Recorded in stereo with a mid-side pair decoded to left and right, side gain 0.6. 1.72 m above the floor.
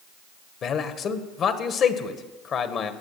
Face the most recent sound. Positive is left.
turn(degrees=50)